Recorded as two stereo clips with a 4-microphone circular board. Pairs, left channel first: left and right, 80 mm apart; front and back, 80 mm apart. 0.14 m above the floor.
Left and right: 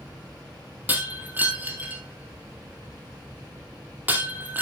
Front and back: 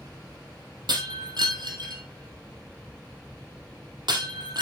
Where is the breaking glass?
160° right, 2.5 m.